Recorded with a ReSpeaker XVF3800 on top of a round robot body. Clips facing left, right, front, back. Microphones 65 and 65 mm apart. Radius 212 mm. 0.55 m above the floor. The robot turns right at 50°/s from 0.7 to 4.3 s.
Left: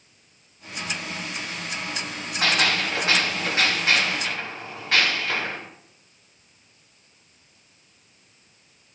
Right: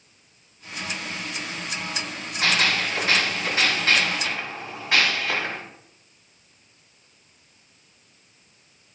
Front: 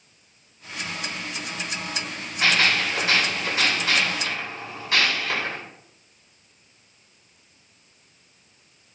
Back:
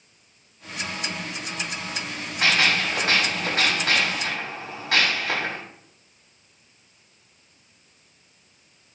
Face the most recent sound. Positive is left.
turn(degrees=-175)